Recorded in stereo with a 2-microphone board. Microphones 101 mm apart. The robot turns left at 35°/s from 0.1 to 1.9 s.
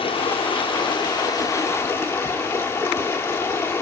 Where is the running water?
95° left, 1.2 m; by 3.8 s 30° left, 1.2 m.